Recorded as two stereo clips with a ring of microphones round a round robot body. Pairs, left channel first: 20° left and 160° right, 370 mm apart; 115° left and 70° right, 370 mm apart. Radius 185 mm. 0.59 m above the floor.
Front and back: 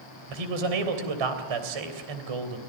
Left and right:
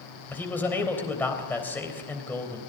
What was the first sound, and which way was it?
A man speaking, 160° right.